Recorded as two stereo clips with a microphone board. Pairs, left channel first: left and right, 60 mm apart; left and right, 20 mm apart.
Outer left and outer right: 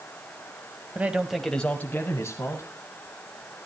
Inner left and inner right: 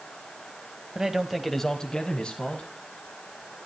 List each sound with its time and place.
0.9 s a man speaking: 30° right (ahead or behind), 1.2 m; by 2.7 s 60° left (ahead or behind), 2.0 m